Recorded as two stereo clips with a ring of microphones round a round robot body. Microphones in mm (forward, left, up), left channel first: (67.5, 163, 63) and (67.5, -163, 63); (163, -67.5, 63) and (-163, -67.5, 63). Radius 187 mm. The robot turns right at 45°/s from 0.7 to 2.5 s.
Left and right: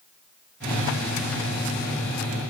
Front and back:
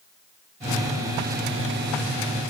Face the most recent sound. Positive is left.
No sound to turn to.